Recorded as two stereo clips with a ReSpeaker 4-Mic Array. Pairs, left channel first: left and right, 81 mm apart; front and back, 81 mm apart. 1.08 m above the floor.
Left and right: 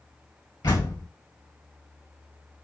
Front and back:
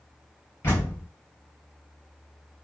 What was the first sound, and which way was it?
A door slam, 60° left.